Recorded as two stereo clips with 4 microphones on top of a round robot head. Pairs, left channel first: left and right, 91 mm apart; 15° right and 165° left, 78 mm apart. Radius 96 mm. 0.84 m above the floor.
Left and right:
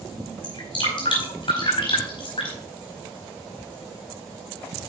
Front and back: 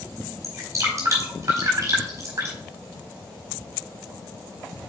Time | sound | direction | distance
0.4 | dripping | 115° left | 4.5 m